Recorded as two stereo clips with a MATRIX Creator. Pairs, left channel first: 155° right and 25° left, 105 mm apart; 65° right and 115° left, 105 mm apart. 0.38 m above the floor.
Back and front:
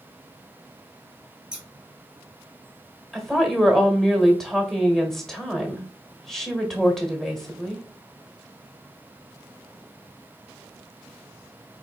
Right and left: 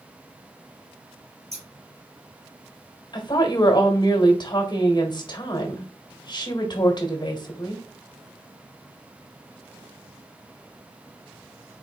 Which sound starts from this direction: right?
A woman speaking, at 3.1 s.